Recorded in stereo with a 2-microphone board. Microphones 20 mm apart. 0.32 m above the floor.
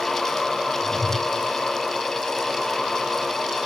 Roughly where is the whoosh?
Left.